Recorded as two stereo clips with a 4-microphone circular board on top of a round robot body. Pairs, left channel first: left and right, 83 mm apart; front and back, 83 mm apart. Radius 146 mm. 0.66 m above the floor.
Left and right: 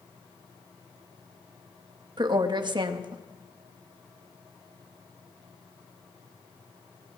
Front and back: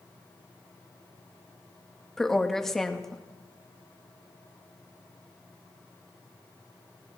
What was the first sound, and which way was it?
A woman speaking, 85° right.